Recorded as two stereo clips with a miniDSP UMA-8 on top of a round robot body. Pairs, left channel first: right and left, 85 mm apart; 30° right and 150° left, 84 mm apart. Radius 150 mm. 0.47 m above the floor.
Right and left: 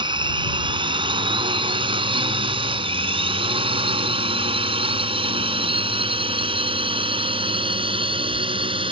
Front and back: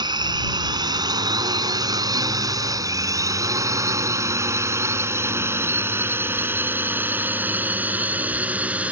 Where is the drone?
115° left; by 8.9 s 75° left.